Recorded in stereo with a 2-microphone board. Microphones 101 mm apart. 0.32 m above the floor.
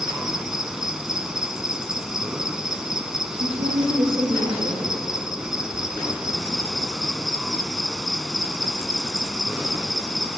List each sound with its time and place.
0.0 s an insect: 5° right (ahead or behind), 1.5 m
3.3 s a woman speaking: 80° right, 9.5 m